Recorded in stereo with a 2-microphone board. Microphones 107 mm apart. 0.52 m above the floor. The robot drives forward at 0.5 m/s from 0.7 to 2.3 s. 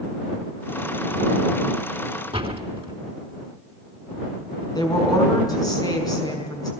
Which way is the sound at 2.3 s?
55° right (ahead or behind).